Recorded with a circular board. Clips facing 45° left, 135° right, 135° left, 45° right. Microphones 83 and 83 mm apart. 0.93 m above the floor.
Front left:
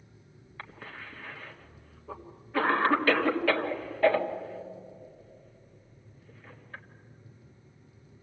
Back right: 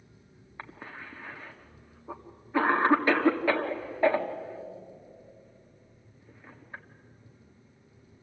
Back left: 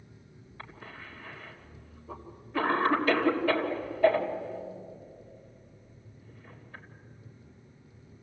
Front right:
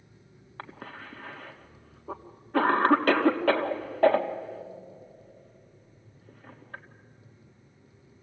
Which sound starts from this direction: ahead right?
A cough, at 0.6 s.